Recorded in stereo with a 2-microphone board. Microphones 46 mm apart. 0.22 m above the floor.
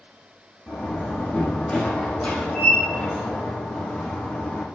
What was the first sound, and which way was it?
A door slam, 20° left (ahead or behind).